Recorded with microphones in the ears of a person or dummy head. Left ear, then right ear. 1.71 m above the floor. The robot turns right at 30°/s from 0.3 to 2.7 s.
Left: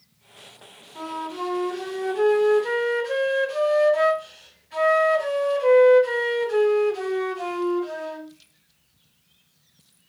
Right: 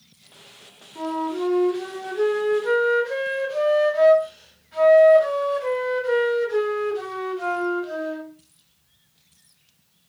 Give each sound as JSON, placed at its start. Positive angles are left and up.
{"t": 0.9, "sound": "a flute", "azimuth_deg": 25, "distance_m": 2.0}